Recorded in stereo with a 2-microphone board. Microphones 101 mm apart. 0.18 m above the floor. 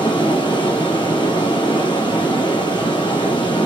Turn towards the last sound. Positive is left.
turn(degrees=45)  # may be behind; listen again after turning